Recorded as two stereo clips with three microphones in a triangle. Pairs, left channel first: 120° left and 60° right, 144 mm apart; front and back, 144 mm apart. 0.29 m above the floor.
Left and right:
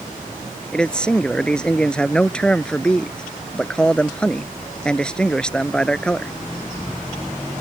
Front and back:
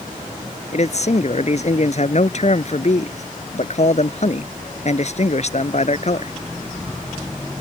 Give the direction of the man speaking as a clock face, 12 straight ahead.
11 o'clock.